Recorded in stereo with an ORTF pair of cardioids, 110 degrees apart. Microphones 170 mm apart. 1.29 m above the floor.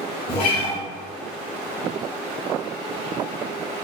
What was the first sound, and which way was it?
A guitar, 55° left.